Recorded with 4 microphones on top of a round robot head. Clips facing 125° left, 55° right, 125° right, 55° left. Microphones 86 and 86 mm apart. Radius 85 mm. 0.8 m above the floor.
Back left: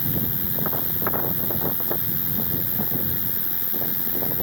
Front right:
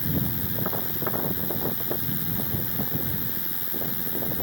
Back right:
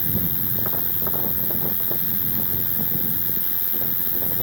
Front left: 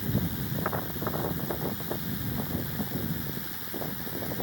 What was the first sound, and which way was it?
An insect, 160° right.